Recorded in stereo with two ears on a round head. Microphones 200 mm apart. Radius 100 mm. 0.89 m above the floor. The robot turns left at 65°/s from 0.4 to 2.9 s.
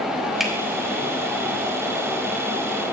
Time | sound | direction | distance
0.4 | a finger snap | centre (ahead or behind) | 2.5 m